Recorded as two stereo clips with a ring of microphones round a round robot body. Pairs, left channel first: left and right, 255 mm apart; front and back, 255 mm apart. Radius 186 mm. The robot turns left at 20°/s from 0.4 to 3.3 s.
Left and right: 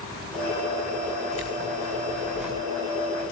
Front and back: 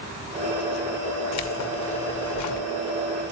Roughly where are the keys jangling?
Ahead.